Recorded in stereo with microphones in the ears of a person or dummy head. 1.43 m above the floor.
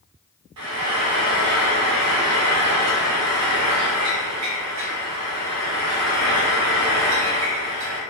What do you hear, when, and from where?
0.6 s frying: 85° right, 0.7 m